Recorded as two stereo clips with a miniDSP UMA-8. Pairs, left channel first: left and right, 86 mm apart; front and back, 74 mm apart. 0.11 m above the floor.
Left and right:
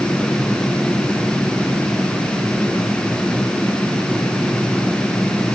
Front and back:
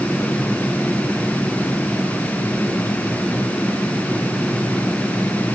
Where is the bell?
I don't hear a bell.